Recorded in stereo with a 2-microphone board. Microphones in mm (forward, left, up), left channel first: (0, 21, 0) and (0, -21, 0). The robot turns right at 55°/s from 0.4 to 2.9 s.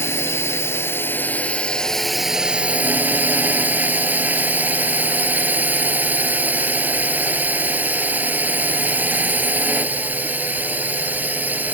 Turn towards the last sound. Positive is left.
turn(degrees=-135)